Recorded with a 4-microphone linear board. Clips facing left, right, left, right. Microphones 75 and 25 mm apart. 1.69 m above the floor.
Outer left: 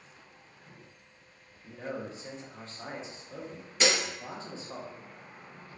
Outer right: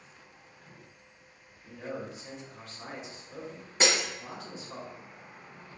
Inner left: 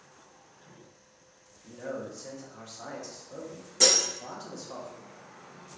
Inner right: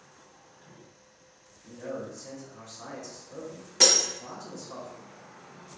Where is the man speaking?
30° left (ahead or behind), 0.8 m.